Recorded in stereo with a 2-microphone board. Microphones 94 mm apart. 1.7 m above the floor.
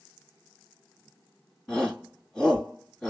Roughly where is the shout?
Centre.